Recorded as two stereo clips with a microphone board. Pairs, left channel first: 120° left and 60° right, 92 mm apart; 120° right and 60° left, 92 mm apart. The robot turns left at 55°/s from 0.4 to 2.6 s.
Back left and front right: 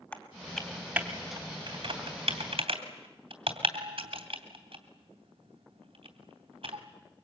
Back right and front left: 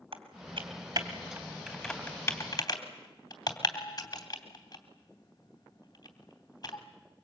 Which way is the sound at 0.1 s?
50° left.